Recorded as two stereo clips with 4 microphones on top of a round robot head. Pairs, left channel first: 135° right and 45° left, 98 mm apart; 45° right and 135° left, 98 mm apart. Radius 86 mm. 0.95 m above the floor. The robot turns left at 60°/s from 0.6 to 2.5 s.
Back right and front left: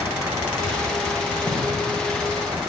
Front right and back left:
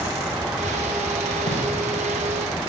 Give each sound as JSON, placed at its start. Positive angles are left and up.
{"t": 1.5, "sound": "a gunshot", "azimuth_deg": -15, "distance_m": 5.5}